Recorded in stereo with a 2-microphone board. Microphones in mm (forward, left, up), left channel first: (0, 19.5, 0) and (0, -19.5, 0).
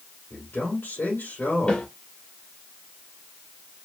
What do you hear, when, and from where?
0.3 s a man speaking: 65° left (ahead or behind), 2.5 m
1.7 s a snare drum: 30° left (ahead or behind), 1.6 m